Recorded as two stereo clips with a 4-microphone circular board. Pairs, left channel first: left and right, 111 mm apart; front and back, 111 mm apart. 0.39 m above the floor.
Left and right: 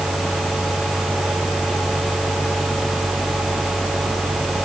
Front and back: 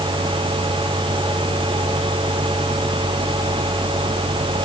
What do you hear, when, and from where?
Only background noise.